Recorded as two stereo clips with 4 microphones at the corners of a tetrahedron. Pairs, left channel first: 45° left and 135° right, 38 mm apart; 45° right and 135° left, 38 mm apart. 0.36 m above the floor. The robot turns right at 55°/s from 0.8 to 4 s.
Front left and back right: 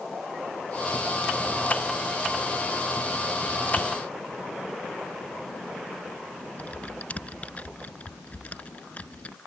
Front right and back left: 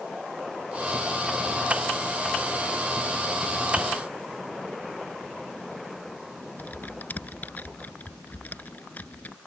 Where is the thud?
70° right; by 3.9 s 65° right.